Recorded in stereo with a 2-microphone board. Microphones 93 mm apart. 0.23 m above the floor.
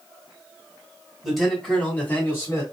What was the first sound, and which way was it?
A man speaking, 5° right (ahead or behind).